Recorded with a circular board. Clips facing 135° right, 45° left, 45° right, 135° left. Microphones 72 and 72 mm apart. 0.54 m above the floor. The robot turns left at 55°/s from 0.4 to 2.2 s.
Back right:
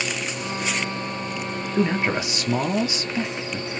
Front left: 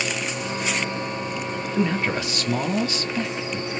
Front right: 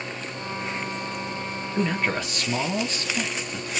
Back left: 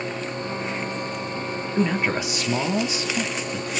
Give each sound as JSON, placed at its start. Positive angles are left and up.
{"t": 1.8, "sound": "a man speaking", "azimuth_deg": -140, "distance_m": 0.7}